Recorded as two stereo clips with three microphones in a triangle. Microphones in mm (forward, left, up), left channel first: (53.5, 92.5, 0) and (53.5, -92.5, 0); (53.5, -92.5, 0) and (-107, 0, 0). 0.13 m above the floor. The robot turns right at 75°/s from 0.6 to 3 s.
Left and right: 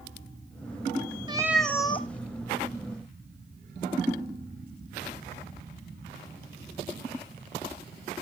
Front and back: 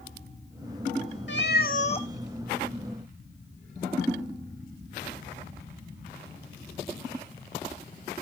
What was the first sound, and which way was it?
A cat meowing, 25° right.